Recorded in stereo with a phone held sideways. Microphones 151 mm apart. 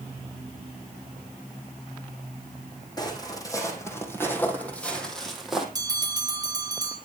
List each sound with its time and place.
3.0 s footsteps: 25° left (ahead or behind), 4.5 m; by 5.7 s 5° right (ahead or behind), 3.5 m
5.8 s a bell: 25° right (ahead or behind), 4 m